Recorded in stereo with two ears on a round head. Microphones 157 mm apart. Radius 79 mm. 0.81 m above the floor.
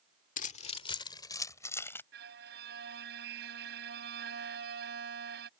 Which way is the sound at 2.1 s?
65° right (ahead or behind).